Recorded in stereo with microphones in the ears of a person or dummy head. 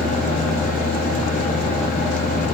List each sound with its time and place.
0.0 s a fan: 35° left (ahead or behind), 2.5 m